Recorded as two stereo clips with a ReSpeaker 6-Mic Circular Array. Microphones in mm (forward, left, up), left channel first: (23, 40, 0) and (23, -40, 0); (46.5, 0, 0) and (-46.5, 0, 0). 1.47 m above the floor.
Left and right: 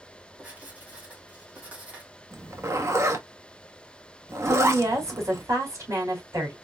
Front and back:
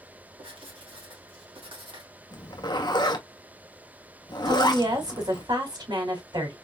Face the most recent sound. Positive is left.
turn(degrees=-145)